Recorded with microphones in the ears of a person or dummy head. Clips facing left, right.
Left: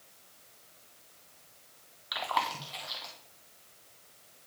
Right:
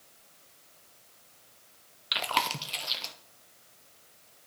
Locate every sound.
2.1 s chewing: 40° right (ahead or behind), 0.8 m